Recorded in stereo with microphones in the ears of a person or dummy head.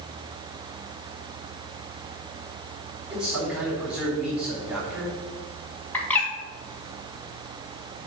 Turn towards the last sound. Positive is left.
turn(degrees=10)  # may be behind; listen again after turning